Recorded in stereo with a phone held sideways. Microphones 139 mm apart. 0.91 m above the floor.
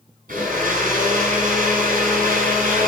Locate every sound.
0.3 s a blender: 80° right, 8 m